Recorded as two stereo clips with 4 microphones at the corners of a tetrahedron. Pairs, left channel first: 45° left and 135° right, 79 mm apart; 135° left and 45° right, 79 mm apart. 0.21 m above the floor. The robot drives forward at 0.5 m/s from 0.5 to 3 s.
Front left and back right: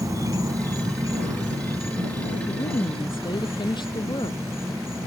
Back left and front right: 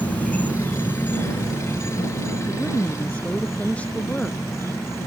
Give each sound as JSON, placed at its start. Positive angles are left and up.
{"t": 0.0, "sound": "an insect", "azimuth_deg": -160}
{"t": 2.5, "sound": "a woman speaking", "azimuth_deg": 60}